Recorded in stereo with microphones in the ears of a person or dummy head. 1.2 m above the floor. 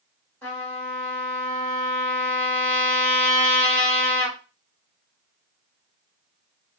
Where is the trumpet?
5° left (ahead or behind), 1.6 m.